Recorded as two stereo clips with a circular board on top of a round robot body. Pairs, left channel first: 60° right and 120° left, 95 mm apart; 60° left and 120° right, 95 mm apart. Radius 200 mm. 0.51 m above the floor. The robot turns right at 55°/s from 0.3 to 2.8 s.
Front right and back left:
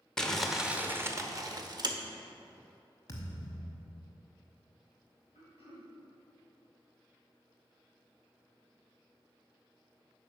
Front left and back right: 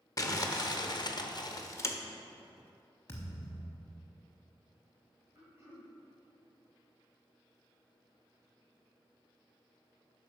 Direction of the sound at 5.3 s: 60° right.